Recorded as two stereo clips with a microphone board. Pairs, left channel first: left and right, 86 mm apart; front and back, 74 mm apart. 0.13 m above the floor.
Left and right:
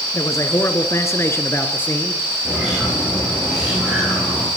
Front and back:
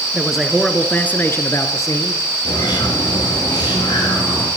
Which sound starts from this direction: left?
A man speaking, at 0.1 s.